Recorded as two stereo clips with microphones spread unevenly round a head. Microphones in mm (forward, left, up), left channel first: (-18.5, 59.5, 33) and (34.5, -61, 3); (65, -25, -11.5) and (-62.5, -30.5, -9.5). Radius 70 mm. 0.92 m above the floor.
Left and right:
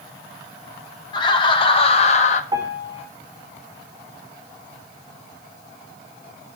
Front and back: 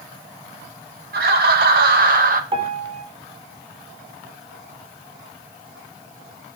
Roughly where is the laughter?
Behind.